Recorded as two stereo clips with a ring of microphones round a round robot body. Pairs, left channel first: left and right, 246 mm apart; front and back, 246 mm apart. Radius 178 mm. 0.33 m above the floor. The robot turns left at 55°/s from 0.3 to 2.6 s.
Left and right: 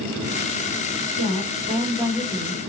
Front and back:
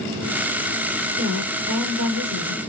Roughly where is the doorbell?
No doorbell in this recording.